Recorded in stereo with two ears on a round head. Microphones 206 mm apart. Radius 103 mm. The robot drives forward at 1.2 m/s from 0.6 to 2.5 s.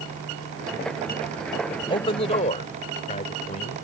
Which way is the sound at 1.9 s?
25° left (ahead or behind).